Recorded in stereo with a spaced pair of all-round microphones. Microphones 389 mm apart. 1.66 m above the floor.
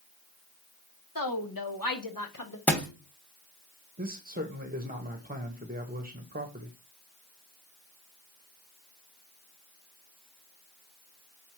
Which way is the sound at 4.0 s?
25° right (ahead or behind).